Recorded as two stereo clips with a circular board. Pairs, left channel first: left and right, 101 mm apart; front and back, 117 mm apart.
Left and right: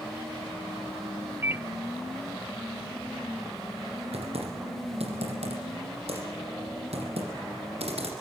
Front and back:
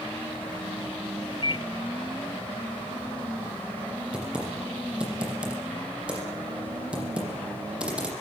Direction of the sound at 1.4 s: 30° right.